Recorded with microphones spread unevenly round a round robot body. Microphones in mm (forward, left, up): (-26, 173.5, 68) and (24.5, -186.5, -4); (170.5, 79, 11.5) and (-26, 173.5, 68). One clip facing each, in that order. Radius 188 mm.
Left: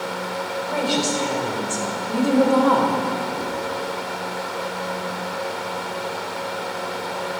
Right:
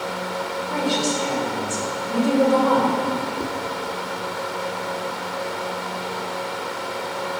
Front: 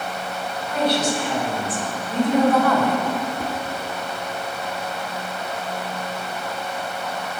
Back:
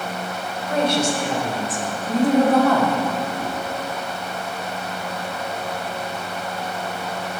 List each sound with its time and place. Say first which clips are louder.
0.7 s a woman speaking: even, back 1 dB; 120° left, 3 m; by 3.0 s 80° left, 1.7 m
3.4 s tapping: even, even; 25° right, 1.2 m